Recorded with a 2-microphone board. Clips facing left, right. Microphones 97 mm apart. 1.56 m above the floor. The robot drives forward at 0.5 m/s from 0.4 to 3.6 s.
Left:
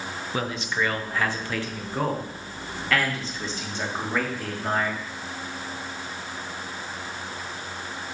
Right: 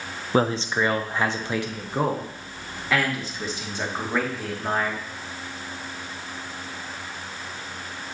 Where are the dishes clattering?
No dishes clattering in this recording.